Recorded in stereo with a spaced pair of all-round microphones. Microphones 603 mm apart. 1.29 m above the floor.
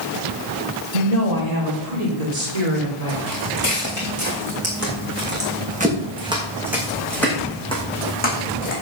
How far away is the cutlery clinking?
I don't hear cutlery clinking.